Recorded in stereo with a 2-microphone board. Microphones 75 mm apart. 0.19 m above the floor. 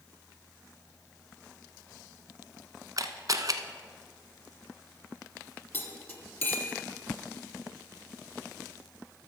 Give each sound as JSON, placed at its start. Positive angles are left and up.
{"t": 3.0, "sound": "a camera shutter", "side_deg": -50, "distance_m": 0.6}
{"t": 5.7, "sound": "cutlery clinking", "side_deg": 20, "distance_m": 1.6}